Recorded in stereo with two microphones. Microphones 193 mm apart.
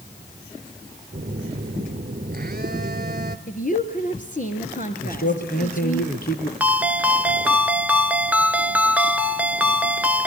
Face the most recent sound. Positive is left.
turn(degrees=-10)  # may be behind; listen again after turning